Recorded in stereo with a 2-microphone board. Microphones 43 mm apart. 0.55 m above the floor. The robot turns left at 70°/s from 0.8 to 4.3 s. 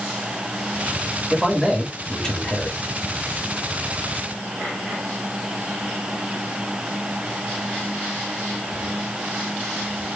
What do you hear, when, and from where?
1.3 s a man speaking: 10° right (ahead or behind), 1.3 m; by 2.8 s 25° left (ahead or behind), 1.3 m